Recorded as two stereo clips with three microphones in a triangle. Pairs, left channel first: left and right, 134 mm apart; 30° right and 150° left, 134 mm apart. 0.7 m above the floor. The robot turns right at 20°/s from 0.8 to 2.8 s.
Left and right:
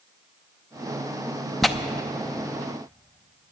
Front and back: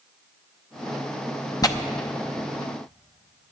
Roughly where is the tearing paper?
Ahead.